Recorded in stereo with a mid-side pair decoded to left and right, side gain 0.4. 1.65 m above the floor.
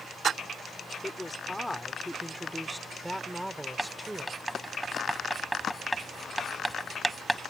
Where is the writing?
5° right.